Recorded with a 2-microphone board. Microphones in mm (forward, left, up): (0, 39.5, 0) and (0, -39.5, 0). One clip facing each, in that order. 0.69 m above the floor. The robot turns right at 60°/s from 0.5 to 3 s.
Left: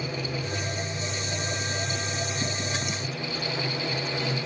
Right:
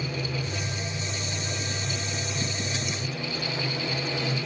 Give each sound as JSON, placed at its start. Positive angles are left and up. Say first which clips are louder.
{"t": 0.0, "sound": "running water", "louder": "even", "azimuth_deg": 65, "distance_m": 9.0}